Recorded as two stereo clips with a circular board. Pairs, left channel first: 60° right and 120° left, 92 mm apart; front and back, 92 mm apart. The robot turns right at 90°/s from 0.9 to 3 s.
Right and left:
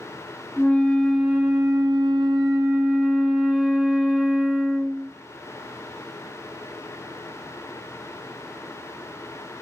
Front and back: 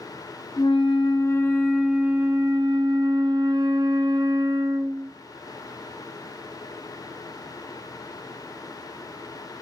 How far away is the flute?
About 1.2 m.